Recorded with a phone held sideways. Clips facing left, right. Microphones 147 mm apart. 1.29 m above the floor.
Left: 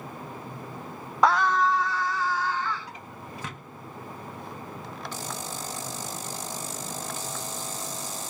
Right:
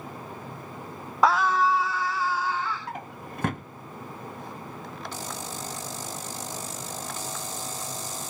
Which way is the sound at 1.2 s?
Centre (ahead or behind).